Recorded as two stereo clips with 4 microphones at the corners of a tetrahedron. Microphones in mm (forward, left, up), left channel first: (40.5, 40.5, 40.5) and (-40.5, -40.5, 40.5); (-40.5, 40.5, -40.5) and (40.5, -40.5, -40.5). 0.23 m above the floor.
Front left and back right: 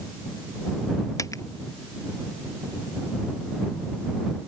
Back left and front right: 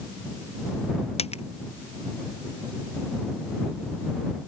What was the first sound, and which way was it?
A dropped coin, 110° left.